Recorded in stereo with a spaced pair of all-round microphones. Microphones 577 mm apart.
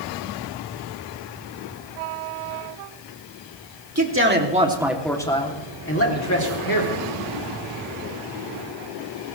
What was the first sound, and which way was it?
A man speaking, 25° right (ahead or behind).